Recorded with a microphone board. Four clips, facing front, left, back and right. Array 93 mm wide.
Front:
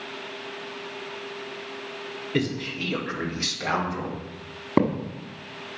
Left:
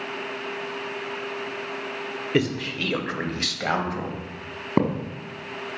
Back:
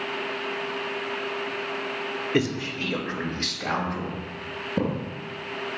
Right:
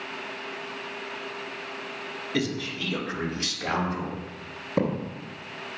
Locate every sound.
2.3 s a man speaking: 115° left, 1.3 m; by 4.2 s 80° left, 2.5 m
4.8 s a thud: 35° left, 1.7 m